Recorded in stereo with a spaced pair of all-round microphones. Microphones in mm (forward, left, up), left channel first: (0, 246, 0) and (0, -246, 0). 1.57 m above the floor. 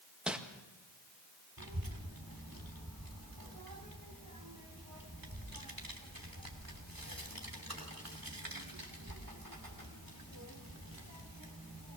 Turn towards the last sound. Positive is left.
turn(degrees=-45)  # may be behind; listen again after turning